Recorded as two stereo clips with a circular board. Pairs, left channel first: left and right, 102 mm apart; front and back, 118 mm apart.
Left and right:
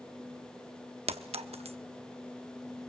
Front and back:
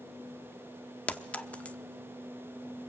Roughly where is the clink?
Right.